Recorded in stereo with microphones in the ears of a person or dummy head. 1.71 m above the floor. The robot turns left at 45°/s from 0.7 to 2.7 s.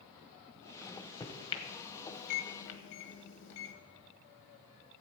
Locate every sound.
0.8 s a microwave: centre (ahead or behind), 1.1 m; by 3.7 s 65° left (ahead or behind), 1.1 m